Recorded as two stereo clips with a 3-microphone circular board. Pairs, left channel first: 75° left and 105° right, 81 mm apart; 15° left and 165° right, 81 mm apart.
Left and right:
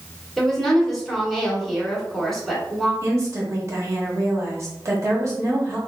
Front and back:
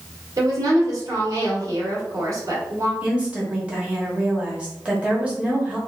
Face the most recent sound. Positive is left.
turn(degrees=-100)